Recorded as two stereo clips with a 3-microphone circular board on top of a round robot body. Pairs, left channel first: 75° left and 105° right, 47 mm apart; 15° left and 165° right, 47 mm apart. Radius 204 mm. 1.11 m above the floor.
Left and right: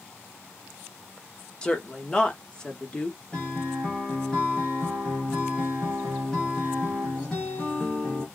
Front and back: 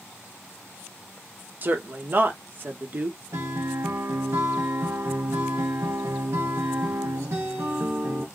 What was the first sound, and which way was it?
A woman speaking, 145° left.